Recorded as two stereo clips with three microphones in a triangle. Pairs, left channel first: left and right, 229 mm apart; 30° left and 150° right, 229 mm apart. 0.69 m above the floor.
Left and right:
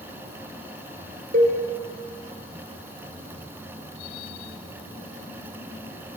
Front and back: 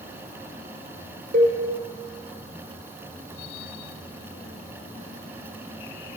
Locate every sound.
1.3 s a cowbell: 120° right, 2.5 m